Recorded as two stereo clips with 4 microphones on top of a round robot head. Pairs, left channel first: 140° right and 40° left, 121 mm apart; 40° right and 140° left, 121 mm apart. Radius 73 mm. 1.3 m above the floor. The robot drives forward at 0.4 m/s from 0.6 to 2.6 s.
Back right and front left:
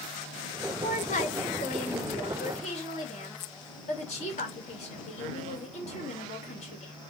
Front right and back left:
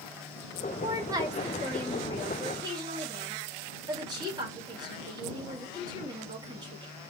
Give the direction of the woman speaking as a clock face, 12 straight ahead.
5 o'clock.